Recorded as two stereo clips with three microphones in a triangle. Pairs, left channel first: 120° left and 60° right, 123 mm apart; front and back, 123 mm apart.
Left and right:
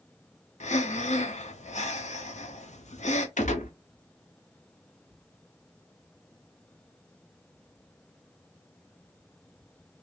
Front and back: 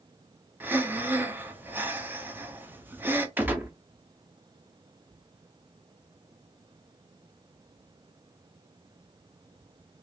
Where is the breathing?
105° left, 0.7 m.